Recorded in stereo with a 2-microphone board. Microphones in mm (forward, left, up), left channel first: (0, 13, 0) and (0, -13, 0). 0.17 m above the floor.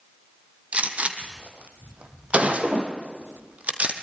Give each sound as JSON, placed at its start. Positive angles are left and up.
{"t": 0.7, "sound": "a gunshot", "side_deg": -60, "distance_m": 2.5}